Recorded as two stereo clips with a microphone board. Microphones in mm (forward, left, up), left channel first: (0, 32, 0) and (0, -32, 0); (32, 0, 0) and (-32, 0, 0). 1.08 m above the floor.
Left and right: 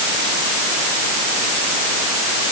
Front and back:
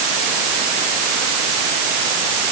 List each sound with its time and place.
Only background noise.